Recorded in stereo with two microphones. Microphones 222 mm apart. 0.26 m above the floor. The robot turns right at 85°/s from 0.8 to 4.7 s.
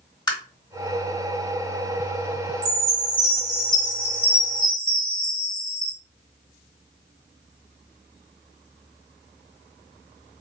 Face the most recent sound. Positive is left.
turn(degrees=85)